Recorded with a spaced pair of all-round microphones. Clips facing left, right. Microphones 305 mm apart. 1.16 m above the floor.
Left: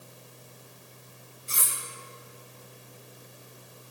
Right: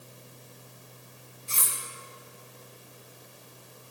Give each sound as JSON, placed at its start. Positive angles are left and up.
{"t": 1.5, "sound": "cutlery clinking", "side_deg": 20, "distance_m": 3.0}